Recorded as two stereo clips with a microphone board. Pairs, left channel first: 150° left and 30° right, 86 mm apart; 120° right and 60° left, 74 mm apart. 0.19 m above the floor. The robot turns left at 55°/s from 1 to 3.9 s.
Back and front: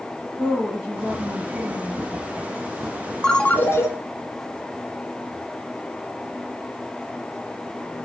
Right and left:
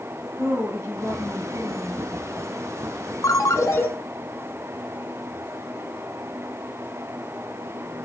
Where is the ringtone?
130° right, 1.0 m; by 3.9 s 165° right, 1.0 m.